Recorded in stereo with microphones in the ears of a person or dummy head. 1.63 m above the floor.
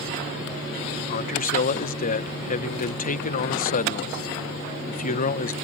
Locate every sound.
1.1 s a man speaking: 40° left (ahead or behind)